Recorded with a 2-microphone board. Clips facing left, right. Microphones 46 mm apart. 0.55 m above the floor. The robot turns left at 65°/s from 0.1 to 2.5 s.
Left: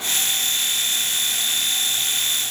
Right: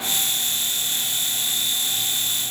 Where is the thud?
No thud in this recording.